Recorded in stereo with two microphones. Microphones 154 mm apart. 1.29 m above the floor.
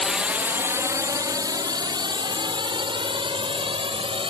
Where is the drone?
Centre (ahead or behind); by 4.3 s 35° right (ahead or behind).